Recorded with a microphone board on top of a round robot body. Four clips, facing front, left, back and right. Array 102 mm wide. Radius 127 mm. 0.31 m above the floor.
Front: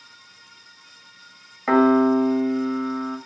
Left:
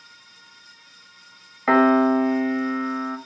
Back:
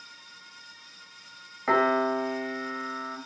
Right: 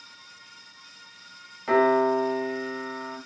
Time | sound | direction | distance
1.7 | a piano | 75° left | 2.5 m